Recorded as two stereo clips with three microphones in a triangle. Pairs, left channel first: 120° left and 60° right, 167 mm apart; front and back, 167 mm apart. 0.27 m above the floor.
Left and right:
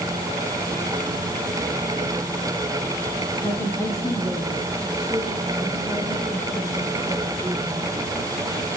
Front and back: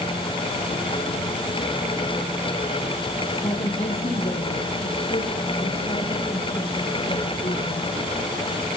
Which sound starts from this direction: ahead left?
A woman speaking, at 3.4 s.